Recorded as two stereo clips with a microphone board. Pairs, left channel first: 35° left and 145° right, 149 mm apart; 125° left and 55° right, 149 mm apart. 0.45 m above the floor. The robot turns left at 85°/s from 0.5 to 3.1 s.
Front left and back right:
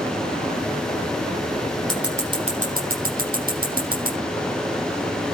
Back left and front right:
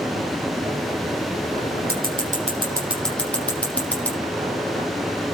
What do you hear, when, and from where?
1.9 s scissors: 50° right, 8 m; by 4.2 s 155° right, 8 m